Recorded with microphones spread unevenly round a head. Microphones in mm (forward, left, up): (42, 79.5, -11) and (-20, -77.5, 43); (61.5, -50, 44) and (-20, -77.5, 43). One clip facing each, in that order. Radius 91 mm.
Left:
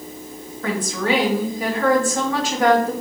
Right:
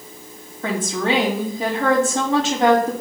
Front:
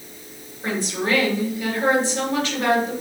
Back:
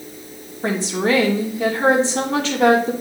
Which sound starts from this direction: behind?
A woman speaking, at 0.6 s.